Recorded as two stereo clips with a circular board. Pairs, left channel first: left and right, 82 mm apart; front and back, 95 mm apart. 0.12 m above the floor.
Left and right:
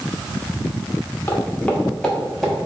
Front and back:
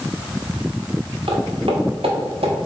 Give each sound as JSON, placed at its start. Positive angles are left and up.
{"t": 1.3, "sound": "footsteps", "azimuth_deg": 160, "distance_m": 1.4}